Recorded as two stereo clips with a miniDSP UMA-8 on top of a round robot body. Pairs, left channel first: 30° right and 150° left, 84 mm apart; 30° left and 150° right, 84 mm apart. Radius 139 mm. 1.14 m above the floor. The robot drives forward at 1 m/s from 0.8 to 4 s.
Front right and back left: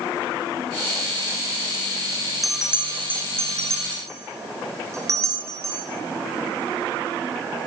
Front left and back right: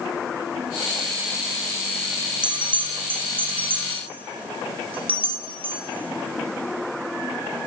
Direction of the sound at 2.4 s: 120° right.